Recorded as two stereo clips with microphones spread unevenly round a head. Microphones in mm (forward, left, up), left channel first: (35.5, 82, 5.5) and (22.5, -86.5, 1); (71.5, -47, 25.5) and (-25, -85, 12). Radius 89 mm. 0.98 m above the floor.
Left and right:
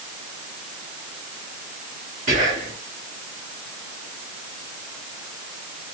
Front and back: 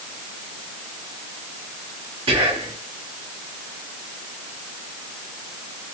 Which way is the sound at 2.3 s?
145° right.